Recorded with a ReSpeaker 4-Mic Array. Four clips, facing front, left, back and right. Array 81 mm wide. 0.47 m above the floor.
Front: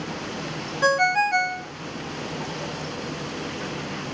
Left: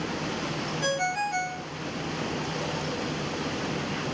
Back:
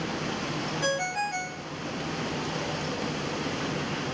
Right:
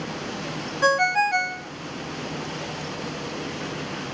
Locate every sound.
0.8 s a ringtone: 45° right, 0.5 m